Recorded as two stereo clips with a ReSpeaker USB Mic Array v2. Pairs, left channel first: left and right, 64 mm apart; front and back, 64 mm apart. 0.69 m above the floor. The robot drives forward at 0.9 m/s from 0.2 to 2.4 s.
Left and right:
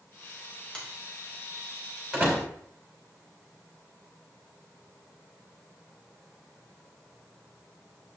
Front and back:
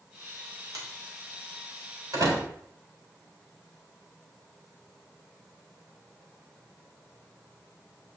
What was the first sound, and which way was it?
A finger snap, 160° left.